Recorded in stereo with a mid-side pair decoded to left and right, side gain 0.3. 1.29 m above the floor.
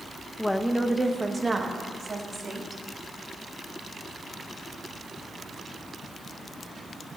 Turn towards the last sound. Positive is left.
turn(degrees=-45)